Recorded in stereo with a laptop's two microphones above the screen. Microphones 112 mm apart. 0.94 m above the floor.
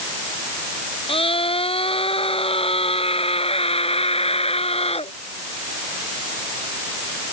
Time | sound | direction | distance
1.1 | a scream | 55° left (ahead or behind) | ?